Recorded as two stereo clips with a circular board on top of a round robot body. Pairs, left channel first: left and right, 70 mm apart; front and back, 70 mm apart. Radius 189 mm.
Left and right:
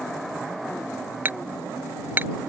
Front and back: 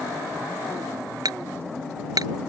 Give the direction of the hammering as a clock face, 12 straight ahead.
5 o'clock.